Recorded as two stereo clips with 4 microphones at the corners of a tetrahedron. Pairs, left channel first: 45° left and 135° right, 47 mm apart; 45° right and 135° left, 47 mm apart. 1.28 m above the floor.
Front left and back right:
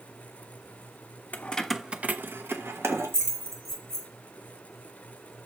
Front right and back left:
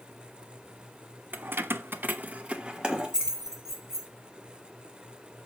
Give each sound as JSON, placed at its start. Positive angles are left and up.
{"t": 1.3, "sound": "keys jangling", "azimuth_deg": 95, "distance_m": 0.6}